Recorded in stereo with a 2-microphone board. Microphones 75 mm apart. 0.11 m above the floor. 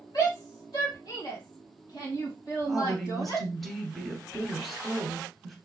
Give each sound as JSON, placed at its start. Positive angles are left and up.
{"t": 0.1, "sound": "a shout", "side_deg": 60, "distance_m": 3.0}
{"t": 2.6, "sound": "a woman speaking", "side_deg": 0, "distance_m": 1.6}